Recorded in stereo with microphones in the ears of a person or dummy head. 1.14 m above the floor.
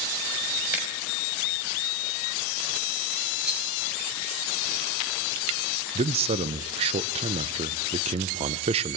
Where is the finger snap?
10° right (ahead or behind), 4.5 m.